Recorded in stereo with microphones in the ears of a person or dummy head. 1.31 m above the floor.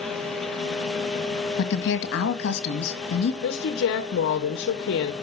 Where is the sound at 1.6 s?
65° left (ahead or behind), 1.9 m.